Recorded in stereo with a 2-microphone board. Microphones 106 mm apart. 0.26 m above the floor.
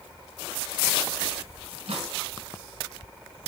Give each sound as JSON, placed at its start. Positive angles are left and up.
{"t": 1.7, "sound": "a microwave", "side_deg": -70, "distance_m": 1.9}